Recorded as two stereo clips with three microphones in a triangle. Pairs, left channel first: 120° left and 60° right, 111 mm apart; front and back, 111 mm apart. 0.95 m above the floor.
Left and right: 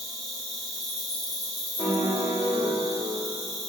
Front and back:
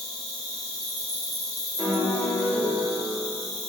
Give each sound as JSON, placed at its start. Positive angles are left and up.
{"t": 0.0, "sound": "an insect", "azimuth_deg": 25, "distance_m": 1.9}
{"t": 1.8, "sound": "a piano", "azimuth_deg": 80, "distance_m": 1.1}